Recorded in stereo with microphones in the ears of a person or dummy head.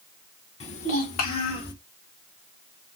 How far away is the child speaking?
About 0.9 m.